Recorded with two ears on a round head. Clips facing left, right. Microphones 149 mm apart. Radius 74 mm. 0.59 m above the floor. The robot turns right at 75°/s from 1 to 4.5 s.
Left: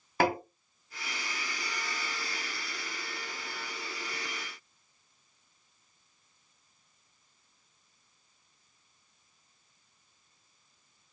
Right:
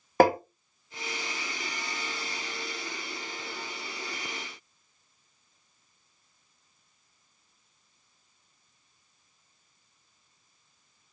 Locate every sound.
0.2 s tapping: 40° right (ahead or behind), 0.8 m